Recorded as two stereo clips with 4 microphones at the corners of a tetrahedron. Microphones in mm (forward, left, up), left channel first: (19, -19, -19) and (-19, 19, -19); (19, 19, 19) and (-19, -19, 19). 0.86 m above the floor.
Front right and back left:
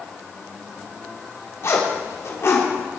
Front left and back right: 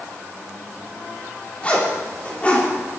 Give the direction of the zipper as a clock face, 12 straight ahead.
1 o'clock.